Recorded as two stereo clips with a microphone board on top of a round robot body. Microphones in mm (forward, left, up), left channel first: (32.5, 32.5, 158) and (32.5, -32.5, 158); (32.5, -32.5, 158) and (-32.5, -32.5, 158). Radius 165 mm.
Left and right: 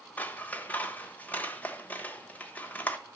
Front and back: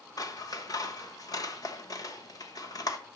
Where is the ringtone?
No ringtone in this recording.